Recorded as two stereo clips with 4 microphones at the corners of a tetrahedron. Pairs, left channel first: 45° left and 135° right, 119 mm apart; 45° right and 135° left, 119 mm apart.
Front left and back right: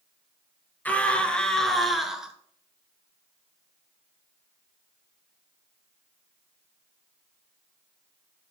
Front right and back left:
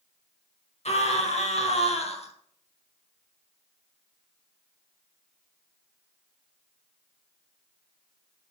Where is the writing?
I don't hear writing.